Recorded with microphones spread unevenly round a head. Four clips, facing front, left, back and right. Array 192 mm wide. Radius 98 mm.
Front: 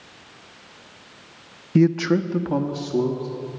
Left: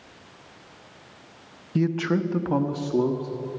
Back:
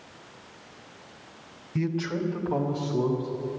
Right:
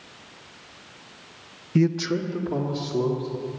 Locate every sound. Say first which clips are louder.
1.8 s a man speaking: right 1 dB, front 11 dB; 10° right, 0.7 m; by 3.5 s 60° left, 2.5 m